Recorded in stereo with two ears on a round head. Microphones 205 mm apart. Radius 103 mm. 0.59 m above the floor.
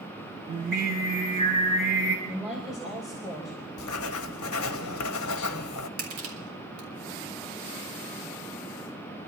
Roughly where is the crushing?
Right.